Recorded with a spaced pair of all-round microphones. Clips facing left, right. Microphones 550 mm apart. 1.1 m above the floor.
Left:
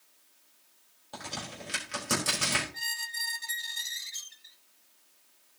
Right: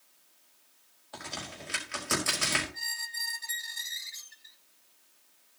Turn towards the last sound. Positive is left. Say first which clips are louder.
# left 2 dB
turn(degrees=55)  # may be behind; listen again after turning